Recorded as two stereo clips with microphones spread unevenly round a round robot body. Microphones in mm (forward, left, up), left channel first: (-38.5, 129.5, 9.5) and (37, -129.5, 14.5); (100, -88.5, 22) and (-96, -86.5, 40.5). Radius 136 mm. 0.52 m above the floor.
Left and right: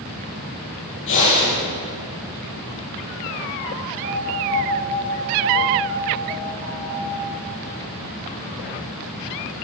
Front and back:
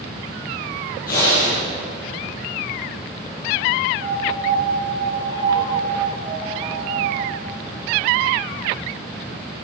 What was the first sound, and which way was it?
Breathing, 60° left.